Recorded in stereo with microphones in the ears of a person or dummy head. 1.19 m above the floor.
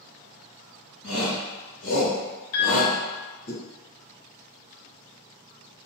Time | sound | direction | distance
1.0 | a shout | 60° left (ahead or behind) | 1.8 m
2.5 | a piano | 45° left (ahead or behind) | 1.2 m